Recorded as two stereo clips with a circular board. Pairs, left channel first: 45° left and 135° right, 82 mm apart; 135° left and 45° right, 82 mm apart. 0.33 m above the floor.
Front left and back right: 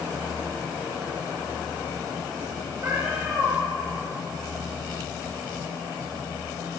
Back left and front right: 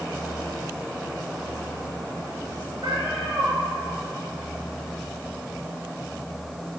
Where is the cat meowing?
75° right, 3.5 m.